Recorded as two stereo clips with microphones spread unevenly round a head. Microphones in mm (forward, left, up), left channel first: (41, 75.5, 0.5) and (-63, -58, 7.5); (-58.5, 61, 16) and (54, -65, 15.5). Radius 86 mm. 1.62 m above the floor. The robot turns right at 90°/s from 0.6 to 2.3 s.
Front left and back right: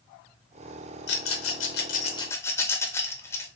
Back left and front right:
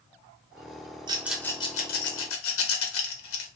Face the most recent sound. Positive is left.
turn(degrees=130)